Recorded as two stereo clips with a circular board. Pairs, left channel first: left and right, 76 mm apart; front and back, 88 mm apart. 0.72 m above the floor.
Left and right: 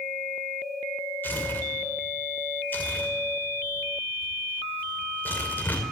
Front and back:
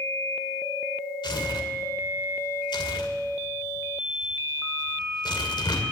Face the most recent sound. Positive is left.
turn(degrees=25)